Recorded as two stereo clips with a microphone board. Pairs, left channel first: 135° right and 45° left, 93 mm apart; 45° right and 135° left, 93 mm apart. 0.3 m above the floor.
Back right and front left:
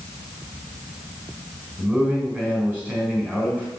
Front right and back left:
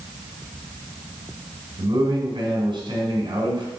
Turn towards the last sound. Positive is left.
turn(degrees=115)